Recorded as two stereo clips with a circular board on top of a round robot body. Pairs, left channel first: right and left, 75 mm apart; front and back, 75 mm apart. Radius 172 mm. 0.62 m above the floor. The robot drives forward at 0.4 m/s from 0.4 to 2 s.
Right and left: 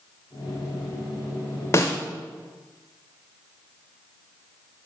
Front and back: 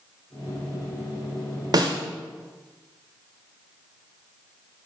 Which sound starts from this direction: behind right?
A snare drum, at 1.7 s.